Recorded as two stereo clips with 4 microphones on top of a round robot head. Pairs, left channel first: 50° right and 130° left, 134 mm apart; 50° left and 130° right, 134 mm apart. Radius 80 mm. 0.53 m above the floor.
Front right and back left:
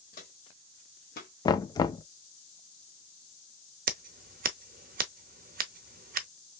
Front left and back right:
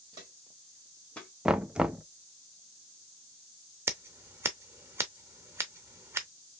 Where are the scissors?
155° left, 0.5 m.